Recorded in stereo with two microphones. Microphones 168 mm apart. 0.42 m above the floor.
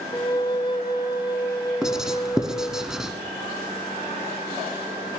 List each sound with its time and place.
0.1 s a flute: 25° left (ahead or behind), 0.7 m
1.8 s writing: 5° right (ahead or behind), 0.8 m